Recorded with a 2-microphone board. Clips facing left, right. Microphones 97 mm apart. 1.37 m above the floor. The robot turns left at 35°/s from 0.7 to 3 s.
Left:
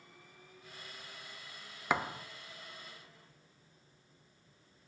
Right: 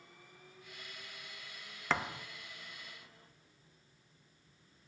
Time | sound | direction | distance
1.9 | a thud | 15° left (ahead or behind) | 0.7 m